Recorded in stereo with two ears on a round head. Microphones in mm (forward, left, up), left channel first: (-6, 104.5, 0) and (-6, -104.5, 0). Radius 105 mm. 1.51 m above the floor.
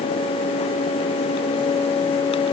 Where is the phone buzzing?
I don't hear a phone buzzing.